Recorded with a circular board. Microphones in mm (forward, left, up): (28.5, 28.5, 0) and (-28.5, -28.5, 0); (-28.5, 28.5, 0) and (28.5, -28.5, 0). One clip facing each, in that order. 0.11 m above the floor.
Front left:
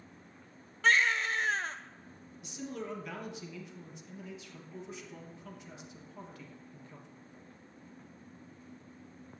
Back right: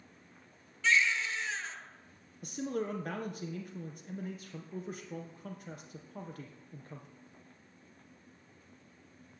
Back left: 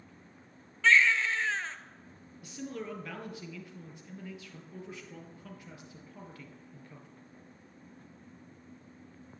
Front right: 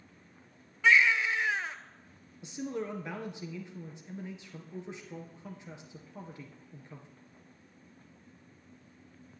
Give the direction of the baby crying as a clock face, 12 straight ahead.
11 o'clock.